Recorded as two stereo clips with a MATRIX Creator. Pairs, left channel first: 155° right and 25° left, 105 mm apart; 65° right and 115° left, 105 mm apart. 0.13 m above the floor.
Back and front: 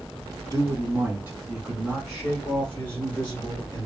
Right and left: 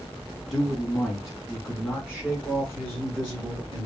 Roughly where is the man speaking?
Ahead.